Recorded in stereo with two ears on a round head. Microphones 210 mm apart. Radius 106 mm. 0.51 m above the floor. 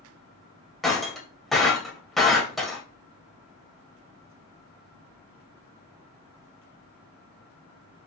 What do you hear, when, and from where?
0.8 s breaking glass: centre (ahead or behind), 1.2 m